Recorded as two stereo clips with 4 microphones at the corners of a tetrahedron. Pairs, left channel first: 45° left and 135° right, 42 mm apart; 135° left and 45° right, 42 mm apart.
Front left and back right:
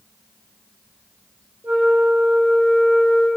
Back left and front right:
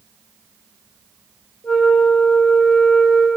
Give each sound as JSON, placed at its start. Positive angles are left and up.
{"t": 1.6, "sound": "a flute", "azimuth_deg": -165, "distance_m": 3.0}